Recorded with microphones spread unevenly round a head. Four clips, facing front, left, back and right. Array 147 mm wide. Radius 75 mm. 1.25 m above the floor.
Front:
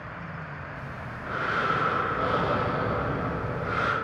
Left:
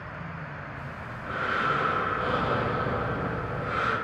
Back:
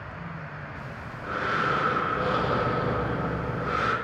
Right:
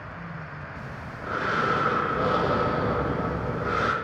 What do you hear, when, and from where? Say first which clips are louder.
0.8 s breathing: right 1 dB, even; 100° right, 0.7 m